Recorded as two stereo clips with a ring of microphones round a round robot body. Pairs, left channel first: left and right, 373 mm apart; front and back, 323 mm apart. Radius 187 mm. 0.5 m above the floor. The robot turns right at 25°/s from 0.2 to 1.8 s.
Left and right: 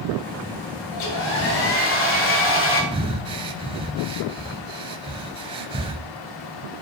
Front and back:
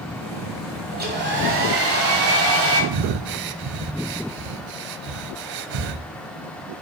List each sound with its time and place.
0.9 s a hair dryer: 120° left, 2.0 m; by 2.8 s 145° left, 2.0 m
2.9 s breathing: 165° right, 0.5 m